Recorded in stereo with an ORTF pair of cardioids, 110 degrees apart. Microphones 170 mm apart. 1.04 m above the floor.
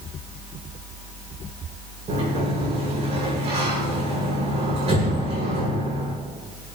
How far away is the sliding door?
About 8.5 m.